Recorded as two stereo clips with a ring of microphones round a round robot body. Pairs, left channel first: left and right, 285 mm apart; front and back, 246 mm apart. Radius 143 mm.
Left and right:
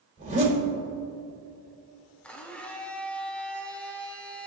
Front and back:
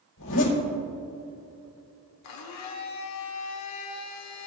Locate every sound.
0.2 s a zipper: 30° right, 4 m
2.2 s a blender: 5° left, 1.1 m